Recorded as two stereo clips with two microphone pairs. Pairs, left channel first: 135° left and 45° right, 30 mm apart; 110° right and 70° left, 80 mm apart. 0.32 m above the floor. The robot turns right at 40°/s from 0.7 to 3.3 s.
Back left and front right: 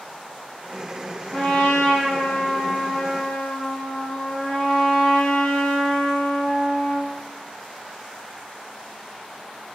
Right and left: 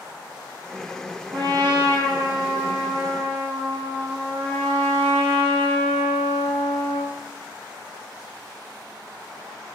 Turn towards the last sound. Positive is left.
turn(degrees=170)